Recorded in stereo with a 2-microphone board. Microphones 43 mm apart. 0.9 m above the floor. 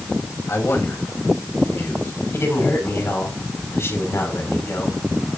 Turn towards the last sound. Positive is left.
turn(degrees=75)  # may be behind; listen again after turning